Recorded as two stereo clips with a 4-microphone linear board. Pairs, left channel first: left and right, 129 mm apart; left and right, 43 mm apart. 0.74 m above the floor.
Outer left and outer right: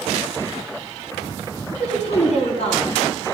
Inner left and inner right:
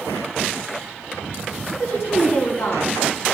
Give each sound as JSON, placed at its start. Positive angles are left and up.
{"t": 1.7, "sound": "a woman speaking", "side_deg": 65, "distance_m": 5.5}